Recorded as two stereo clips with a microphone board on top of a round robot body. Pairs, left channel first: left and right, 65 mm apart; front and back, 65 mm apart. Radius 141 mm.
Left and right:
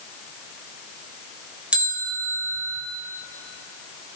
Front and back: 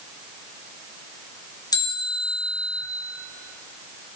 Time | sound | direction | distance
1.7 | a bell | 15° right | 3.5 m